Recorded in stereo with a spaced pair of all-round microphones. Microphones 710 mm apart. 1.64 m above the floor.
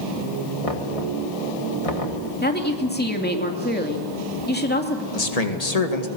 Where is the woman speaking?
15° left (ahead or behind), 2.5 m.